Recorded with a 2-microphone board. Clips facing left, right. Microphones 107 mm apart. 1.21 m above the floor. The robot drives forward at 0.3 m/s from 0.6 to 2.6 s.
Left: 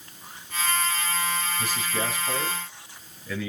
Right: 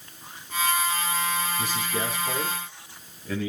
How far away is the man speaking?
About 8.5 m.